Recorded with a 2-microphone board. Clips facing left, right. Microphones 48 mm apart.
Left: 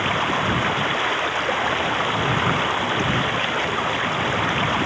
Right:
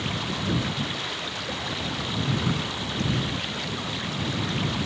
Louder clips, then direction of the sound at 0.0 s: Left 9 dB; 45° left (ahead or behind).